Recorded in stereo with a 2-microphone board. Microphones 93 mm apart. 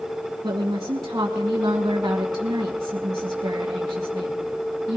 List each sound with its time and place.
0.4 s a woman speaking: 45° right (ahead or behind), 1.4 m